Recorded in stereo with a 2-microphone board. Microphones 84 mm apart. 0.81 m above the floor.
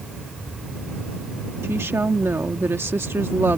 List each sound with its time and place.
1.6 s a woman speaking: 30° right (ahead or behind)